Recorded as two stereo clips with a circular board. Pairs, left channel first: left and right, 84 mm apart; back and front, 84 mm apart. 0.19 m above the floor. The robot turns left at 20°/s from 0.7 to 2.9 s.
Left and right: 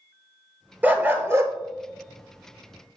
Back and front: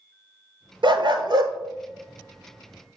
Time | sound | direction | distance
0.8 | a dog barking | 20° right | 0.8 m